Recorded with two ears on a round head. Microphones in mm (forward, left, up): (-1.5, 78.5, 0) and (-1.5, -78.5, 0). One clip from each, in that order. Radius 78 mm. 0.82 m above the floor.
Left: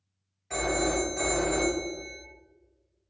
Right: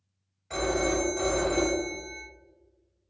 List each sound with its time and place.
0.5 s a phone ringing: 5° left (ahead or behind), 1.6 m